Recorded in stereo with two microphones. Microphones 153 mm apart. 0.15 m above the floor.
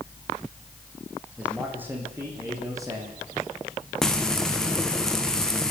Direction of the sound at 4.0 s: 5° left (ahead or behind).